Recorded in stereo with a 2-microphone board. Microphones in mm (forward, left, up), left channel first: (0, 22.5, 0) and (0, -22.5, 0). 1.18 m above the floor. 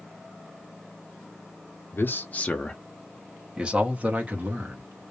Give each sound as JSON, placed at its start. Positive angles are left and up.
{"t": 1.9, "sound": "a man speaking", "side_deg": 50, "distance_m": 0.6}